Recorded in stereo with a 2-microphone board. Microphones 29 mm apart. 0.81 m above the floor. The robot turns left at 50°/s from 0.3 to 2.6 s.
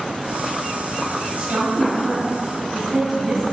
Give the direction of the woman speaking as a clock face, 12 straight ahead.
3 o'clock.